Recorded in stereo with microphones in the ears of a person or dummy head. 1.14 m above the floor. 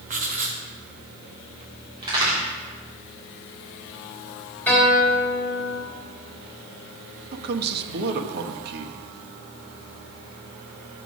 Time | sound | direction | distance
0.1 | writing | 40° right (ahead or behind) | 1.0 m
2.0 | a crack | 25° right (ahead or behind) | 3.5 m
4.7 | a guitar | 10° left (ahead or behind) | 3 m
7.3 | a man speaking | 55° right (ahead or behind) | 1.0 m